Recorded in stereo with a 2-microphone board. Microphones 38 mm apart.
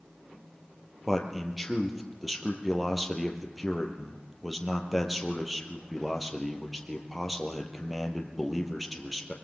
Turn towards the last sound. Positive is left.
turn(degrees=0)  # may be behind; listen again after turning